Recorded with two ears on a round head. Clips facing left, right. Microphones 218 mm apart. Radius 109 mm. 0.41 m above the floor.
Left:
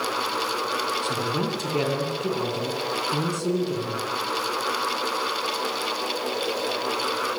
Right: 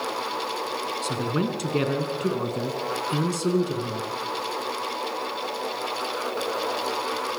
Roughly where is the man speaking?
Right.